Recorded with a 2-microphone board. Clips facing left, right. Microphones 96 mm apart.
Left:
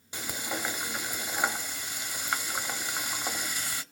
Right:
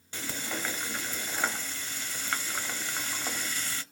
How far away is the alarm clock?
I don't hear an alarm clock.